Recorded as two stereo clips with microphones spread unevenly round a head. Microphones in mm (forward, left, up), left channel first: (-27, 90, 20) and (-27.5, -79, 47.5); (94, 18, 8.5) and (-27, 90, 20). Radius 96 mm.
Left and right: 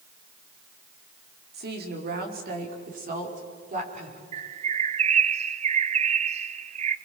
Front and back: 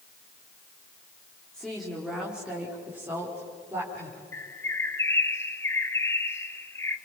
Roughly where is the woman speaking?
Behind right.